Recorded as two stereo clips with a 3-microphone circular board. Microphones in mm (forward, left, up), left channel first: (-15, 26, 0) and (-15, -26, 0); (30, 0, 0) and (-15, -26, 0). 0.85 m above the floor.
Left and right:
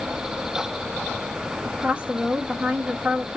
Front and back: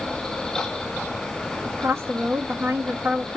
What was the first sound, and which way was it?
A woman speaking, 150° right.